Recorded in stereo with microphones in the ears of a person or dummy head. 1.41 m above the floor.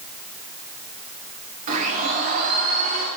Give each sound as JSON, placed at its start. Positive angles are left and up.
{"t": 1.7, "sound": "a blender", "side_deg": -45, "distance_m": 1.9}